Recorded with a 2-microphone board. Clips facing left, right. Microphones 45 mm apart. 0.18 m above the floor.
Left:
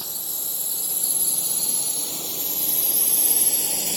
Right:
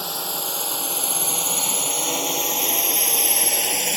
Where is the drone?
80° right; by 4.0 s 55° right (ahead or behind).